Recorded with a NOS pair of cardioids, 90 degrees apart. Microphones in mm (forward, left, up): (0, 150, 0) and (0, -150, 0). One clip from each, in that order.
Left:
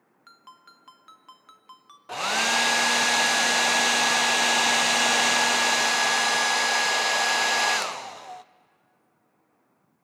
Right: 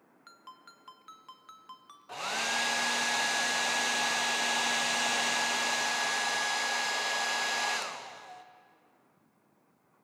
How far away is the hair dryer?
About 0.5 m.